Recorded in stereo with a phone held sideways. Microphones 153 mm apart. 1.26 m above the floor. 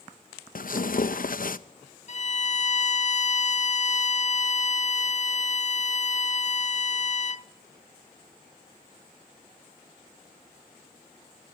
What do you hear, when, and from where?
0.6 s tearing paper: 65° left (ahead or behind), 0.8 m
2.1 s a violin: 50° left (ahead or behind), 0.6 m